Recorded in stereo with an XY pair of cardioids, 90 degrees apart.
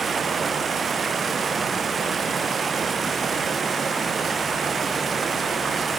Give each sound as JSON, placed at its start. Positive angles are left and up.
{"t": 0.0, "sound": "running water", "azimuth_deg": -50}